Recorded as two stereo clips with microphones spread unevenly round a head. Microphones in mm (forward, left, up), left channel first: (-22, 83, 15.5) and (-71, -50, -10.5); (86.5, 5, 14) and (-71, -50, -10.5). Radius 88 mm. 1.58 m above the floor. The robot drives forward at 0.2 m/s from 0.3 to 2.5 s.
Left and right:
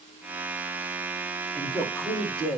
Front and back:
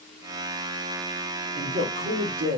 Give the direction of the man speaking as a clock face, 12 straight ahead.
7 o'clock.